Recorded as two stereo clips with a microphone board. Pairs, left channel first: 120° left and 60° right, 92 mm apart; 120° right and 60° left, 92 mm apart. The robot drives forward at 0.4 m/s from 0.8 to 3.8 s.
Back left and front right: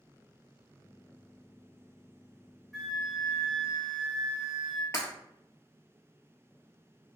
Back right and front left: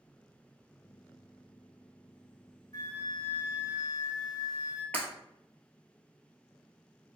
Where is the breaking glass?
170° left, 1.4 m.